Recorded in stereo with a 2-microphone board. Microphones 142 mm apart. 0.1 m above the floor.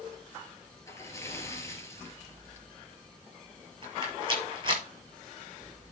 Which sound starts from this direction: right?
A rattle, at 3.8 s.